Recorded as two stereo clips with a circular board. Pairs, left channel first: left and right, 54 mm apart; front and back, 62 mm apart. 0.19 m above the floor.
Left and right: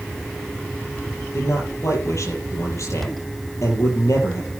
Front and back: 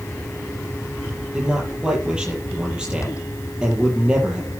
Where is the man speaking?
105° left, 6 m.